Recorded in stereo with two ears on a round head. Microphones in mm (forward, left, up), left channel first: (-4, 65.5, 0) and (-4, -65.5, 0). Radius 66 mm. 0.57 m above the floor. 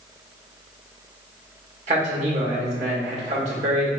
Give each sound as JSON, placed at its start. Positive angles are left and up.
{"t": 1.9, "sound": "a man speaking", "side_deg": -45, "distance_m": 1.7}